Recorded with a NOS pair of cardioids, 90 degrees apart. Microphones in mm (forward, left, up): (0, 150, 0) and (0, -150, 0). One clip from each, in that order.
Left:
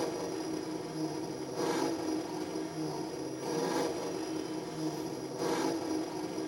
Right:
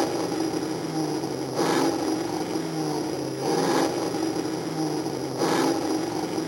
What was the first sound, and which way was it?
An engine running, 70° right.